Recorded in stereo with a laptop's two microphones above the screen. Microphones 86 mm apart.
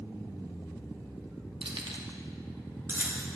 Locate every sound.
1.6 s keys jangling: 80° right, 0.9 m; by 3.3 s 20° right (ahead or behind), 1.3 m